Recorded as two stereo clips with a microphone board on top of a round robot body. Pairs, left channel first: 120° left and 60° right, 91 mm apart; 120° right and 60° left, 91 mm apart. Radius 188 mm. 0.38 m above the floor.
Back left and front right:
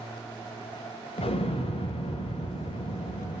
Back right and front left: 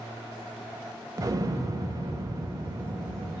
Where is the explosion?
115° left, 0.8 m.